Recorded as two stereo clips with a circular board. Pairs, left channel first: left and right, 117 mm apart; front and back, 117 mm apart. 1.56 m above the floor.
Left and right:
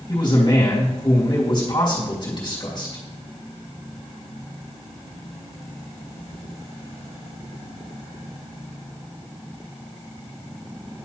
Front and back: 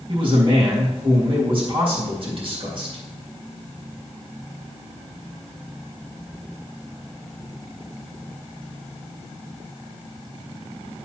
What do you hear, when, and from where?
0.1 s a man speaking: 140° left, 3 m